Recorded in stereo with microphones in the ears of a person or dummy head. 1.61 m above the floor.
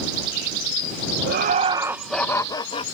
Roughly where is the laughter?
Right.